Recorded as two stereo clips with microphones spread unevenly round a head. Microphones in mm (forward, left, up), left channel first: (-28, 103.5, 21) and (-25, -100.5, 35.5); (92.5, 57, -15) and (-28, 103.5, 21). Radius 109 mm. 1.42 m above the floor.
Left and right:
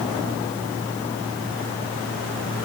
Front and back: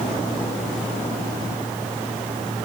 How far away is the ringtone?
I don't hear a ringtone.